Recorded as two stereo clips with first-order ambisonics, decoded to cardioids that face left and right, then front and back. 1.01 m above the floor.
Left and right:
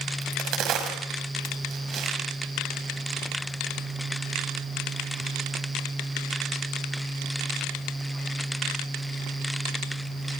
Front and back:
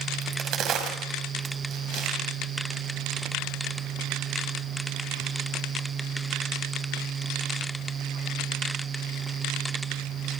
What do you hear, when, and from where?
0.2 s a crack: 135° right, 5.5 m